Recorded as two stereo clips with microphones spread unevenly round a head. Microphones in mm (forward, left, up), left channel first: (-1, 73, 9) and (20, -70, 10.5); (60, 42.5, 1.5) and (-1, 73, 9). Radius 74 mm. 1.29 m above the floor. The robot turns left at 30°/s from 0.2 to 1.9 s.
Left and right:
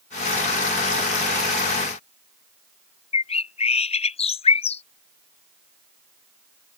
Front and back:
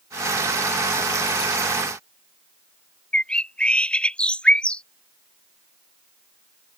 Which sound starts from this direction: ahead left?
A bird, at 3.1 s.